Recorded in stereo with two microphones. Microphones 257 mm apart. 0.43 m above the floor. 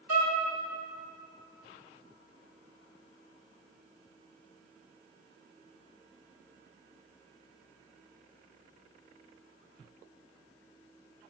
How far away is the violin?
About 0.9 m.